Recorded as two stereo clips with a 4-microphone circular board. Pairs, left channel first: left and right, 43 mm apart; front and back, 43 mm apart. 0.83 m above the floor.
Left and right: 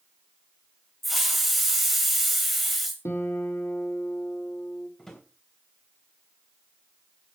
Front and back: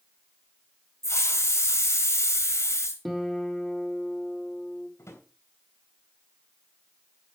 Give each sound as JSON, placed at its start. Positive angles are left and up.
{"t": 1.0, "sound": "a hiss", "azimuth_deg": 0, "distance_m": 1.8}
{"t": 3.0, "sound": "a guitar", "azimuth_deg": 90, "distance_m": 1.8}
{"t": 5.0, "sound": "a drawer", "azimuth_deg": 10, "distance_m": 3.0}